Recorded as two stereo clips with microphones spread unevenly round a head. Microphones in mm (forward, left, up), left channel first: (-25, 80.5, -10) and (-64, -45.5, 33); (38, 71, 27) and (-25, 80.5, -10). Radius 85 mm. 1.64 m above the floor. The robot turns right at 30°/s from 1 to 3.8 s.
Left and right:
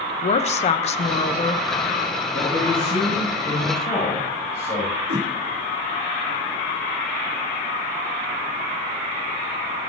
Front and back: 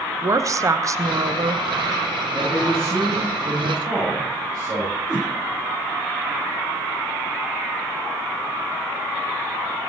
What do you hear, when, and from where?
0.2 s a woman speaking: 120° left, 1.1 m; by 1.6 s 140° left, 1.1 m
2.3 s a man speaking: 90° left, 8 m; by 5.0 s 130° left, 8 m
5.1 s a whoosh: 95° right, 3.5 m